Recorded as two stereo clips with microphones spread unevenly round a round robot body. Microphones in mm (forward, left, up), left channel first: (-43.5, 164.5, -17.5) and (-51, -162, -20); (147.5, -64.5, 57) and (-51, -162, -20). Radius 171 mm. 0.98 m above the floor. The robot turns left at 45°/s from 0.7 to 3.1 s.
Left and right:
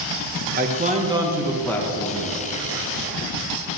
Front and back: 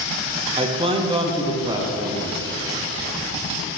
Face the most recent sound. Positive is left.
turn(degrees=110)